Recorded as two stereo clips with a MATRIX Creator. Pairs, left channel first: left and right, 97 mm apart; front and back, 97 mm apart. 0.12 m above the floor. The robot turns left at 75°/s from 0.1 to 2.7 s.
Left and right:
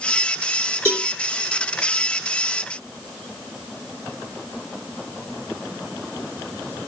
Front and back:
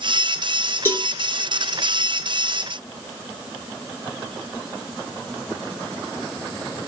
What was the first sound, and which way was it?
A cowbell, 25° left.